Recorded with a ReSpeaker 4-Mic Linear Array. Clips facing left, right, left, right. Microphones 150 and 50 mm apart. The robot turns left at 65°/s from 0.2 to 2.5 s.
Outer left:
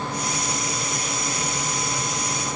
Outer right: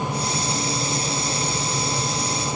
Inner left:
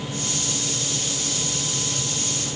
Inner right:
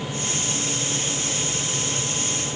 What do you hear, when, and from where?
Only background noise.